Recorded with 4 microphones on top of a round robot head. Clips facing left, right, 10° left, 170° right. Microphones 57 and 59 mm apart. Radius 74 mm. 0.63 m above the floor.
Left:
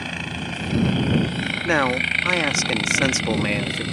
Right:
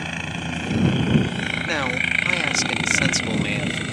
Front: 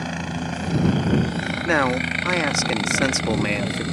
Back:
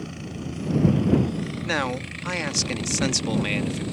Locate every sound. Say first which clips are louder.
0.0 s a helicopter: even, front 7 dB; 5° right; by 3.9 s 10° right
1.6 s a man speaking: left 5 dB, front 7 dB; 45° left